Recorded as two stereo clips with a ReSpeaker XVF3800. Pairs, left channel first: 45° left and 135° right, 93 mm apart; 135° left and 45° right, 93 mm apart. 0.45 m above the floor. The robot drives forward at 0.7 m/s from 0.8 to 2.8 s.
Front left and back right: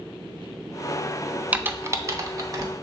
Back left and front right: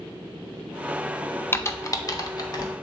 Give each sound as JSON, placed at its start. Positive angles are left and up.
{"t": 1.5, "sound": "typing on a keyboard", "azimuth_deg": 170, "distance_m": 0.5}